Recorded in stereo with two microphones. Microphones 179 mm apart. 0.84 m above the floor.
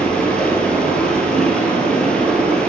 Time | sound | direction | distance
0.0 | running water | 5° left (ahead or behind) | 1.5 m